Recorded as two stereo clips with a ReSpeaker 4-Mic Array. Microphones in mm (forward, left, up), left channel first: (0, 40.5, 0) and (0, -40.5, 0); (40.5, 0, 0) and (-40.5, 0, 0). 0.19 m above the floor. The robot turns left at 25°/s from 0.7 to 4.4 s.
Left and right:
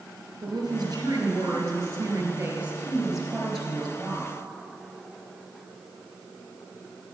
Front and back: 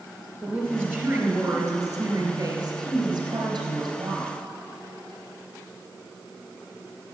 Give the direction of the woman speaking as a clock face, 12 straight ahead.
4 o'clock.